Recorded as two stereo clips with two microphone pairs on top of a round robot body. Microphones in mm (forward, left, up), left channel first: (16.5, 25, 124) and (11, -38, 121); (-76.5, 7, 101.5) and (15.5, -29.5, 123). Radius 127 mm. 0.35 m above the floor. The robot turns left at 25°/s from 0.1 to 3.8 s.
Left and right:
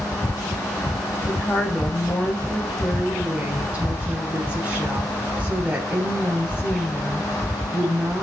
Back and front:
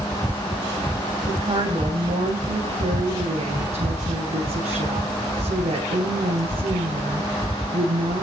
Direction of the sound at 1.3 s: 30° left.